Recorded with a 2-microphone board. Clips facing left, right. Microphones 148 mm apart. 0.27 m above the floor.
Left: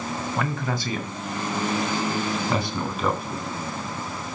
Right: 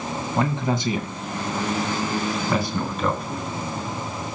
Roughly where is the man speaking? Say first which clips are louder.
Right 7 dB; right.